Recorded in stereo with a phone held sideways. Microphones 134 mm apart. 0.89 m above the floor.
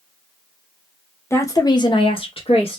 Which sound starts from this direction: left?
A woman speaking, at 1.3 s.